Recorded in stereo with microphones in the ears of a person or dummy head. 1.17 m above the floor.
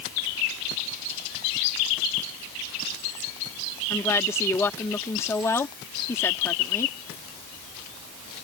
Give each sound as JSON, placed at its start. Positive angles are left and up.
{"t": 3.9, "sound": "a woman speaking", "side_deg": 15}